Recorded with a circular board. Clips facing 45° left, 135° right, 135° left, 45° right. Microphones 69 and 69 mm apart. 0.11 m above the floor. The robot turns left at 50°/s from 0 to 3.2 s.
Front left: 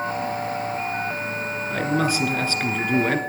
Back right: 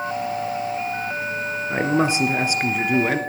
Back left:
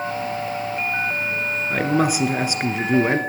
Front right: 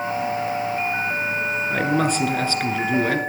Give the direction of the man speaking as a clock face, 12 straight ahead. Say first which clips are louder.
Back right 3 dB, back left 2 dB; 5 o'clock.